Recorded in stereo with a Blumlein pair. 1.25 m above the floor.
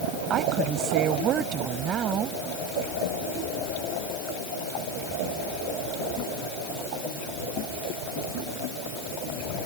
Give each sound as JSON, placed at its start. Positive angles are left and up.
{"t": 0.3, "sound": "a woman speaking", "azimuth_deg": -30}